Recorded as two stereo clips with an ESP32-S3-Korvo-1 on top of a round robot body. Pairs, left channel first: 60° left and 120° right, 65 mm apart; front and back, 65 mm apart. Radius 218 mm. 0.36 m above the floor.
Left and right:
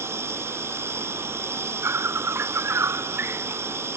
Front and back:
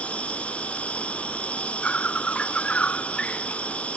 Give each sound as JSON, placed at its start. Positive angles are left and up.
{"t": 0.0, "sound": "an insect", "azimuth_deg": -70}